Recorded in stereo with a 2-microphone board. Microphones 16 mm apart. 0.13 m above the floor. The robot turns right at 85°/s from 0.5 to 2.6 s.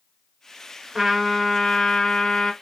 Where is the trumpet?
30° right, 1.2 m; by 2.5 s 100° left, 1.2 m.